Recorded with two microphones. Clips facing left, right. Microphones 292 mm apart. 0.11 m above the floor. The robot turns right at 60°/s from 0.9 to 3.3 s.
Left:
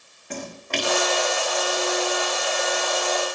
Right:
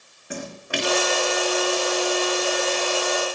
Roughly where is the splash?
Centre.